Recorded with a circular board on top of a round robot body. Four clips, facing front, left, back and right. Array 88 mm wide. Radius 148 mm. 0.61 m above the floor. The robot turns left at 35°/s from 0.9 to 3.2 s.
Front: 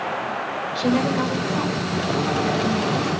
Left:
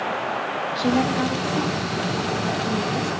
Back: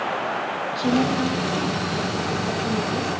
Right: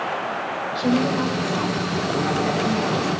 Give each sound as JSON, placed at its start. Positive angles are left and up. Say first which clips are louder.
{"t": 0.8, "sound": "a woman speaking", "louder": "right 1 dB, front 1 dB", "azimuth_deg": -15, "distance_m": 6.0}